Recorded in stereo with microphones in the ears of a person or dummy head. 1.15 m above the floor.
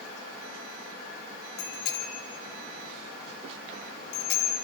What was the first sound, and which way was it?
A bicycle bell, 55° left (ahead or behind).